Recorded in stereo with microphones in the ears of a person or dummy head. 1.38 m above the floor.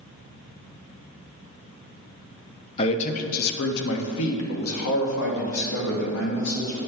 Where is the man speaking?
35° left (ahead or behind), 0.7 m; by 6.8 s 70° left (ahead or behind), 2.5 m.